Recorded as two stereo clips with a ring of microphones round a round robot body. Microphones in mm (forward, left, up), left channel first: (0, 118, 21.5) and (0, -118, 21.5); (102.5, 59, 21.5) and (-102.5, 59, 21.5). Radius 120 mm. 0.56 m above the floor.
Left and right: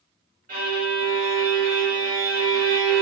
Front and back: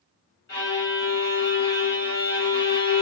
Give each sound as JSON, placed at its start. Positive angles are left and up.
{"t": 0.5, "sound": "a violin", "azimuth_deg": -40, "distance_m": 1.7}